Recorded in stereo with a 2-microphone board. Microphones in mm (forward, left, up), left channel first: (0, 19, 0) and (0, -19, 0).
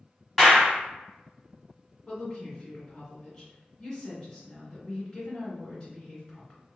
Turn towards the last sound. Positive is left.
turn(degrees=15)  # may be behind; listen again after turning